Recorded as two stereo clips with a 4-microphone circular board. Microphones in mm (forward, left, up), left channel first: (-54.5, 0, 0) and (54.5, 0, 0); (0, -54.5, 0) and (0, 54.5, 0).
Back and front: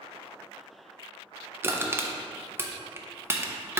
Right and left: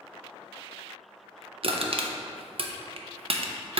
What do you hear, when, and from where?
1.6 s crushing: 65° left, 0.6 m